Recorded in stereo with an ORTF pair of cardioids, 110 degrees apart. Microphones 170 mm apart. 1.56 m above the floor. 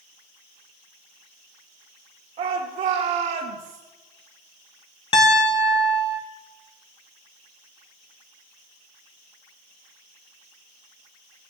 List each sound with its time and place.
2.4 s a shout: 50° right, 1.8 m; by 3.8 s 70° right, 2.5 m
5.1 s a piano: 30° left, 2 m